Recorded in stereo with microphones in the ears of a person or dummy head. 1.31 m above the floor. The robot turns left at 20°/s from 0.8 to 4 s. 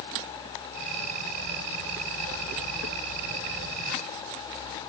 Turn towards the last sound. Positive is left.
No sound to turn to.